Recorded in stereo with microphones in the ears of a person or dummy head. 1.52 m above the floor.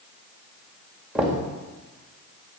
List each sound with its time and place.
1.1 s knocking: 5° right (ahead or behind), 1.8 m